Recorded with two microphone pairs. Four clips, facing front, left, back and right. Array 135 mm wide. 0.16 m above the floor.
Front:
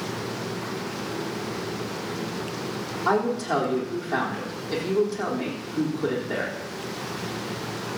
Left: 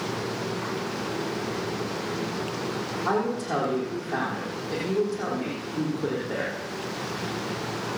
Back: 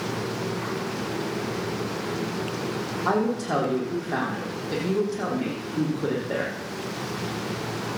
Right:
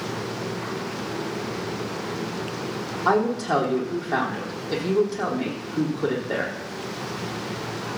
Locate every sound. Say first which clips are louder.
3.0 s a woman speaking: right 6 dB, front 1 dB; 95° right, 6 m